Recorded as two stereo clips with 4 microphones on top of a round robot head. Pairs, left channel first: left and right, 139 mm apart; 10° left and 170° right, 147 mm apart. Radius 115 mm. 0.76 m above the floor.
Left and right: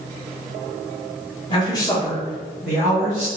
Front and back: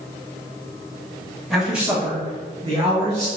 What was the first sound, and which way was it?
A man speaking, 95° left.